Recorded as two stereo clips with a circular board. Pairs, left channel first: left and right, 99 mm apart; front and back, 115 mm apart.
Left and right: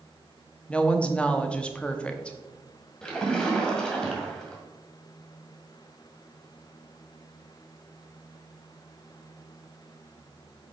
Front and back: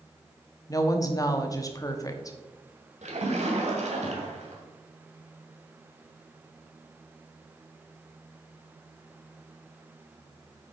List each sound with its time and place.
0.7 s a woman speaking: 20° left, 0.9 m
3.0 s a splash: 170° left, 1.8 m